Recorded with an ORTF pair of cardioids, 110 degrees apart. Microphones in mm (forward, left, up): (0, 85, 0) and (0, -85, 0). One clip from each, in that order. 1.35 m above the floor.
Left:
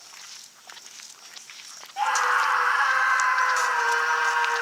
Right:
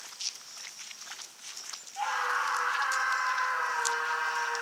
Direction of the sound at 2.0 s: 30° left.